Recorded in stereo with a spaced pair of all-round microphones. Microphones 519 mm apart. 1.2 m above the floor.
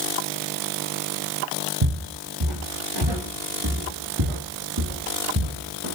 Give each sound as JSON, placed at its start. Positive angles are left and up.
{"t": 1.8, "sound": "footsteps", "side_deg": -55, "distance_m": 4.5}